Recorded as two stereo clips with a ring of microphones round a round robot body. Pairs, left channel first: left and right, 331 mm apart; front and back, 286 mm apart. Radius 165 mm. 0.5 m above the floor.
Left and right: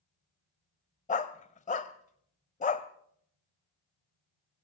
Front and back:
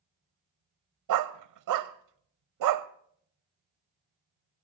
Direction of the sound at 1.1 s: 160° left.